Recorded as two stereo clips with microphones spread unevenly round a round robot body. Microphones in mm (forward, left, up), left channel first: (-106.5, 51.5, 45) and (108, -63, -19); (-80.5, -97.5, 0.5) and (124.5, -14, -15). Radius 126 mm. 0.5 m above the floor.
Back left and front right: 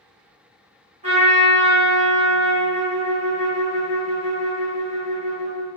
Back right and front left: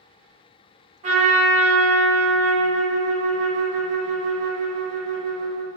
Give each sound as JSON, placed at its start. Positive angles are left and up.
{"t": 1.0, "sound": "a trumpet", "azimuth_deg": -10, "distance_m": 1.5}